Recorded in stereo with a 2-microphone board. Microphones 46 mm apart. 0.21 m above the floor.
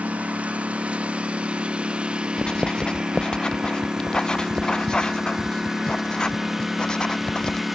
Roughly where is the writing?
Centre.